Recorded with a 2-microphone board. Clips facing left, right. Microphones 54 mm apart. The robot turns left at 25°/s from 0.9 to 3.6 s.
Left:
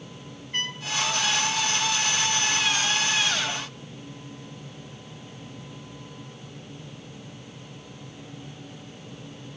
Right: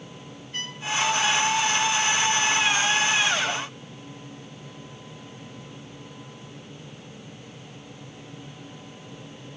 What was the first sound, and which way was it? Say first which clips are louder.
A trumpet: left 4 dB; 40° left (ahead or behind).